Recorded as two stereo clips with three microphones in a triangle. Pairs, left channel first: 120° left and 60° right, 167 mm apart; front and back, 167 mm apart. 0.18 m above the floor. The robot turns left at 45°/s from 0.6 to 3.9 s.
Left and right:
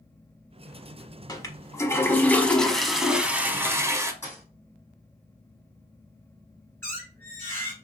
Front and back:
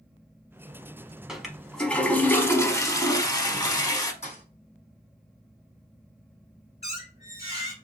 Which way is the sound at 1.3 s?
100° left.